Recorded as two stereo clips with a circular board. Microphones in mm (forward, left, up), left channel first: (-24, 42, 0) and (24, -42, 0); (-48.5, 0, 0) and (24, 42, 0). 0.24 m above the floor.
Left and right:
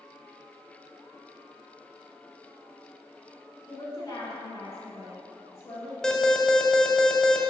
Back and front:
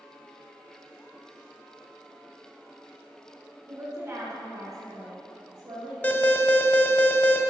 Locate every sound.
3.7 s a woman speaking: 85° left, 3 m; by 5.9 s 60° left, 3.5 m
6.0 s an alarm: 170° right, 0.7 m